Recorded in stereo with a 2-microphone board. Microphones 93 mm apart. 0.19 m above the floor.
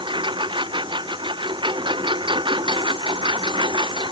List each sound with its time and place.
0.0 s a lawn mower: 60° right (ahead or behind)